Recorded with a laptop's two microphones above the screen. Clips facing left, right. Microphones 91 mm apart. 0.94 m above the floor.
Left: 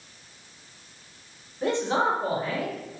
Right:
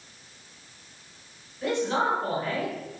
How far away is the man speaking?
About 1.2 m.